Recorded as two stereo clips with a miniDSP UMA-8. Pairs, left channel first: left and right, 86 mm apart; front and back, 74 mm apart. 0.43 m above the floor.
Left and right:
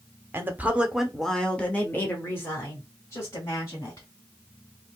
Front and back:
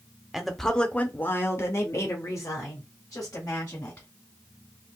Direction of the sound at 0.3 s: 100° right.